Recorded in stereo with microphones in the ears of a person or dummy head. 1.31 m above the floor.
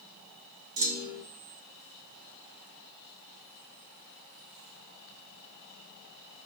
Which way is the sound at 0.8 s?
85° right.